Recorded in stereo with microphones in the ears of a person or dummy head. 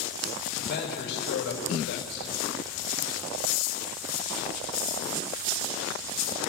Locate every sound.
0.6 s a man speaking: 60° left (ahead or behind), 6 m